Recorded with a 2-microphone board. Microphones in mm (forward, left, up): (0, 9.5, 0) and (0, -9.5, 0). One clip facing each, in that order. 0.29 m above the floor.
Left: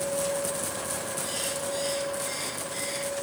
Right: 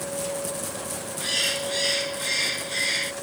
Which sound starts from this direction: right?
A bird, at 1.2 s.